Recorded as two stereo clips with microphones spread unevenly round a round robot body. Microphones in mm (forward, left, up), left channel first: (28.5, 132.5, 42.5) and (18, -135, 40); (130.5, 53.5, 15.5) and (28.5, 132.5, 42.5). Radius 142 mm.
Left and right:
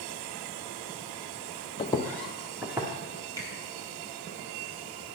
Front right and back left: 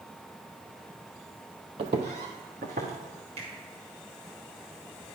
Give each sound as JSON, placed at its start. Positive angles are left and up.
{"t": 1.8, "sound": "footsteps", "azimuth_deg": 155, "distance_m": 0.5}
{"t": 3.4, "sound": "a finger snap", "azimuth_deg": -165, "distance_m": 1.9}